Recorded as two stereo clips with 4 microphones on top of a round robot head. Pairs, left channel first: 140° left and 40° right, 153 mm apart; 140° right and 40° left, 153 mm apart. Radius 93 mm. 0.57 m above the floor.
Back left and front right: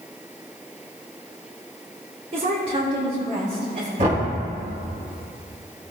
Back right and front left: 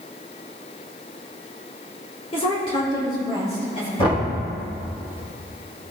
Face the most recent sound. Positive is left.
turn(degrees=-80)